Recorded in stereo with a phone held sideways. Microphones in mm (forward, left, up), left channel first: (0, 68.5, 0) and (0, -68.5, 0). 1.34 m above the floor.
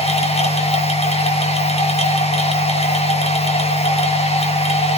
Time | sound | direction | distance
0.0 | a machine running | 50° left (ahead or behind) | 2.5 m